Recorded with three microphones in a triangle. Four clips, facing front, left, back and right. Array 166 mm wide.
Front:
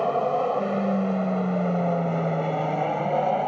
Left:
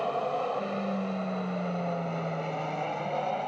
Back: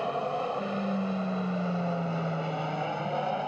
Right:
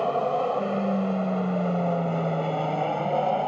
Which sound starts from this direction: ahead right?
An aircraft, at 0.0 s.